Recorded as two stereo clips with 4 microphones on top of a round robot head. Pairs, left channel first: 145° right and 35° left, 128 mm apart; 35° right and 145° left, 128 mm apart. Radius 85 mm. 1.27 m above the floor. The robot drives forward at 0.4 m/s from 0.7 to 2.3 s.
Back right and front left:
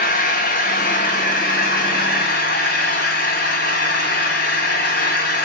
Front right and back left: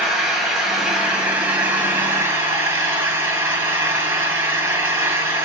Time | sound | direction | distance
0.0 | an engine running | 125° right | 1.8 m